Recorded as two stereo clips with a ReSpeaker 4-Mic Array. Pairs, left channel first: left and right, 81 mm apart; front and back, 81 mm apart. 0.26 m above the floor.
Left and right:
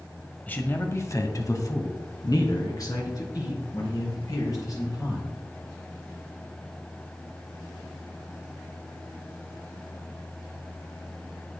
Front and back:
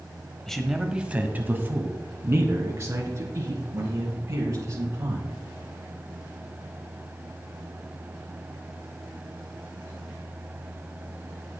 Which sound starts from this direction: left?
A man speaking, at 0.5 s.